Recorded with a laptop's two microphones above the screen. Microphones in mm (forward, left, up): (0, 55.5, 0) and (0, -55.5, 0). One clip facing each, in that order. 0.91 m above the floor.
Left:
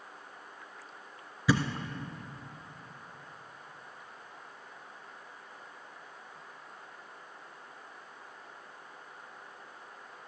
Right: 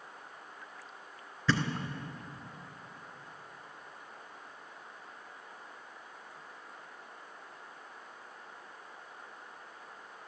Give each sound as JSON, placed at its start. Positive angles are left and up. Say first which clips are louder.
{"t": 1.5, "sound": "a thud", "louder": "left 3 dB", "side_deg": 10, "distance_m": 1.4}